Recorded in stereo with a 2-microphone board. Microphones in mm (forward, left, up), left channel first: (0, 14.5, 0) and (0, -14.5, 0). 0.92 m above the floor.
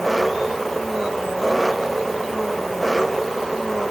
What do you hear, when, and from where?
0.0 s an engine running: centre (ahead or behind)